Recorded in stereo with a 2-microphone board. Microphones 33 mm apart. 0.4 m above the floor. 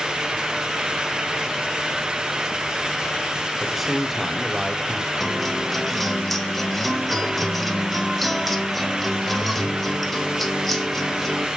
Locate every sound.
3.6 s a man speaking: 5° right (ahead or behind), 1.4 m
5.2 s a guitar: 5° left (ahead or behind), 1.3 m